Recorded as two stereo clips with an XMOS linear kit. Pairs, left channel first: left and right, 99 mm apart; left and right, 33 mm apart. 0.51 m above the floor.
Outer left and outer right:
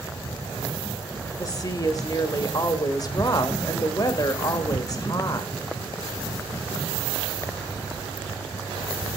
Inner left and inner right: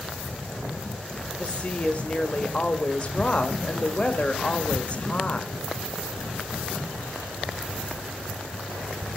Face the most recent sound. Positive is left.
turn(degrees=40)  # may be behind; listen again after turning